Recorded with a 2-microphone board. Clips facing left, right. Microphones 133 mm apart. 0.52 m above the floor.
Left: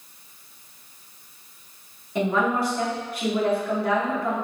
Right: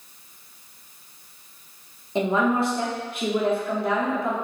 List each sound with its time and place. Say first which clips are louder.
2.1 s a woman speaking: right 1 dB; 25° right (ahead or behind), 0.7 m